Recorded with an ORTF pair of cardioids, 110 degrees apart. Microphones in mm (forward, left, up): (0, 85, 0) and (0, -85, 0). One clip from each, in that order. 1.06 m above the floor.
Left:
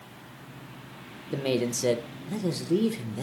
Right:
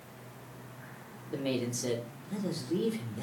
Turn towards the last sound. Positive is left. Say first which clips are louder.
# left 6 dB
turn(degrees=35)